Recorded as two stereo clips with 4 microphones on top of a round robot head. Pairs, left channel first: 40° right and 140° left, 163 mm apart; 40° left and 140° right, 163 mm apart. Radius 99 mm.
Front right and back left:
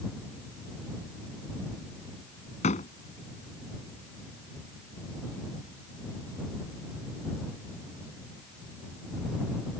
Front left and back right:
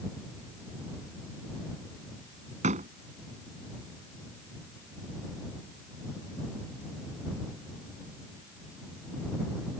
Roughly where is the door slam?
Right.